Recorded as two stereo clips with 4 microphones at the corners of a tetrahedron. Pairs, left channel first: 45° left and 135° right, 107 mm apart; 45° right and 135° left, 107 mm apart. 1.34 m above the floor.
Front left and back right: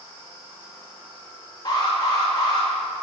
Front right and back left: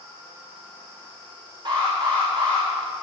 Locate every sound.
1.6 s an alarm: 95° left, 3.5 m